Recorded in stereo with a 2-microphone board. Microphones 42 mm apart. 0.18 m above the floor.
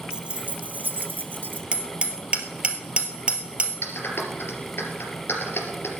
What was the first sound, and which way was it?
Keys jangling, 25° right (ahead or behind).